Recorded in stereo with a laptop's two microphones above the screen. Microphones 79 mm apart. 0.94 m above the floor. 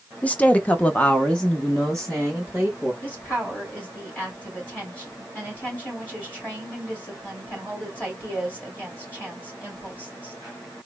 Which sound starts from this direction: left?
A woman speaking, at 3.0 s.